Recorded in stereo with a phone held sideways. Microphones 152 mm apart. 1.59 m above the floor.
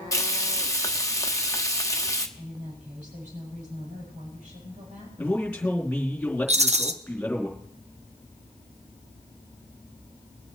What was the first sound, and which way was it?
Frying, 20° left (ahead or behind).